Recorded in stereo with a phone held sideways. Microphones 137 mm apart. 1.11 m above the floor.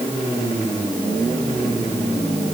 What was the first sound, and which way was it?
Only background noise.